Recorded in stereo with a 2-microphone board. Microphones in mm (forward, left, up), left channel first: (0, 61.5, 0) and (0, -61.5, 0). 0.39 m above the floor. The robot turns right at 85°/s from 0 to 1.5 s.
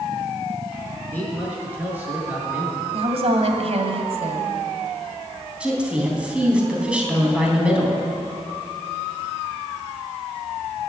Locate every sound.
1.1 s a man speaking: 160° left, 5 m; by 2.8 s 165° right, 5 m
2.9 s a woman speaking: 60° right (ahead or behind), 2 m
5.6 s a woman speaking: 10° right (ahead or behind), 3.5 m